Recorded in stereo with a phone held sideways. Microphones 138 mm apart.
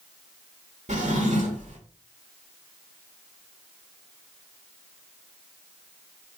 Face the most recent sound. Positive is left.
turn(degrees=-60)  # may be behind; listen again after turning